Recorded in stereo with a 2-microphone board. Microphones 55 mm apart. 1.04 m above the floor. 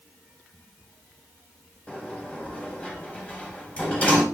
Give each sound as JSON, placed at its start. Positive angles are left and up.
{"t": 1.9, "sound": "a sliding door", "side_deg": 25, "distance_m": 7.5}